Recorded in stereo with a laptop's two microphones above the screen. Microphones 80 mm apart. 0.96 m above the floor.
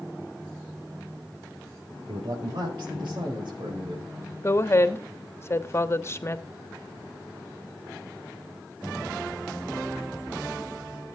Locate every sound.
2.1 s a man speaking: 70° right (ahead or behind), 4.5 m; by 4.0 s 80° right, 4.5 m
4.4 s a woman speaking: 35° left (ahead or behind), 1.2 m